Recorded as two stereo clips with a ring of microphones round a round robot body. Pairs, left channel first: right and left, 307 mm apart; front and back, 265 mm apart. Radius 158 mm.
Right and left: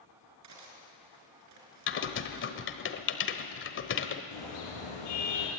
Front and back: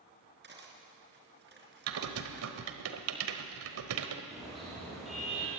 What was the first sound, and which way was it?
Cutlery clinking, 130° left.